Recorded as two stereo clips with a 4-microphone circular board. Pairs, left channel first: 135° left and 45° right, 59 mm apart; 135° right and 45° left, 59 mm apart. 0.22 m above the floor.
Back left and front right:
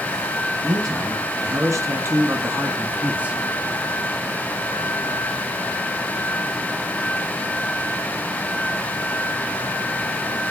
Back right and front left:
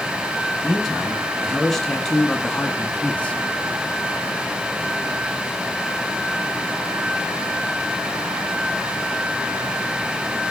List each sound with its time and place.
0.6 s a man speaking: 45° right, 3 m; by 3.4 s 90° right, 1.1 m